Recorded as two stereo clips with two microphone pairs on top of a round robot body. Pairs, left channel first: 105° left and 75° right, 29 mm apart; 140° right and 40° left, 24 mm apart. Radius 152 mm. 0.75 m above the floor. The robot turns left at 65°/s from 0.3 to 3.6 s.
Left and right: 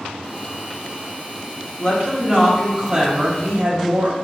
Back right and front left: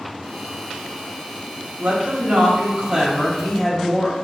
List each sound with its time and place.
1.8 s a woman speaking: 60° left, 1.5 m; by 4.2 s 55° right, 1.5 m